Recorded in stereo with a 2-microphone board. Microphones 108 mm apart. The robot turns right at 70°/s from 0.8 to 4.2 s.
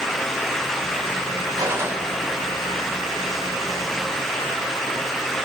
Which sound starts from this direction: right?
A gunshot, at 1.6 s.